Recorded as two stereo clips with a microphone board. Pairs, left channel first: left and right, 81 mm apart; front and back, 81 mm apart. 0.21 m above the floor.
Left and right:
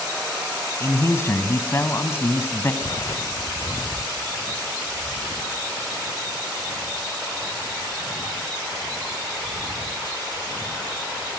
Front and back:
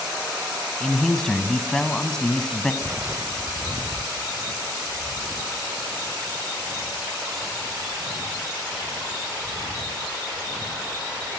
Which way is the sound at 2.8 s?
115° left.